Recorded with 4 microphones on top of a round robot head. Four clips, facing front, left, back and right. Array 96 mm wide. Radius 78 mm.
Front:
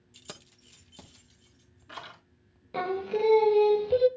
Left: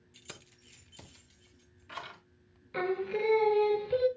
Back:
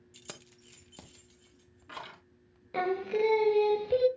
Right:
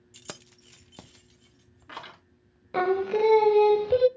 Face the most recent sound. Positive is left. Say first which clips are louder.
# right 8 dB, even
turn(degrees=-90)